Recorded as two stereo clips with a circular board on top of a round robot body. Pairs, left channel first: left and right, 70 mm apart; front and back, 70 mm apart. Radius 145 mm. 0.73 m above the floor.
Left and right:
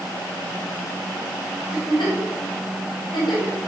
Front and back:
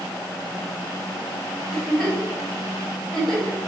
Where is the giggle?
80° left, 4 m.